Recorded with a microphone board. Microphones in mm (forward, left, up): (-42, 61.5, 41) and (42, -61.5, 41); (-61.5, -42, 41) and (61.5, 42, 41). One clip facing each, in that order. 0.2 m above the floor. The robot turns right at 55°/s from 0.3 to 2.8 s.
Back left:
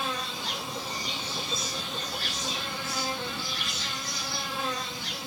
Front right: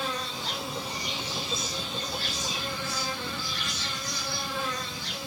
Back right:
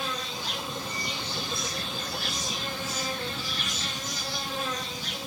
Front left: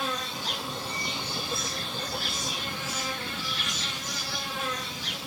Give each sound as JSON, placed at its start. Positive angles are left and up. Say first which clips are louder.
{"t": 0.0, "sound": "an insect", "louder": "even, front left 1 dB", "azimuth_deg": 45, "distance_m": 1.8}